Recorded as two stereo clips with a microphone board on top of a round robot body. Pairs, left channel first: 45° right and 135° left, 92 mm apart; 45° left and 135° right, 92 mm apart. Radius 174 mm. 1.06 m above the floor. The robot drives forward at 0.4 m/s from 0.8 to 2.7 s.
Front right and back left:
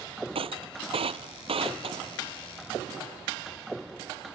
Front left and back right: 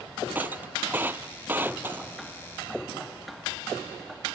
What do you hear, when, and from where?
0.3 s breaking glass: 155° left